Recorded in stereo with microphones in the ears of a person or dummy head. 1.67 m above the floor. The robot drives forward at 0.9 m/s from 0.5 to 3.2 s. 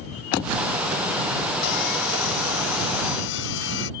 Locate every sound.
1.6 s sawing: 60° left (ahead or behind); by 3.9 s 55° left (ahead or behind)